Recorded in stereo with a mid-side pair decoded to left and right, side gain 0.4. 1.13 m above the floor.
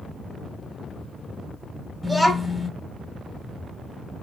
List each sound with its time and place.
2.0 s a child speaking: 10° left, 0.9 m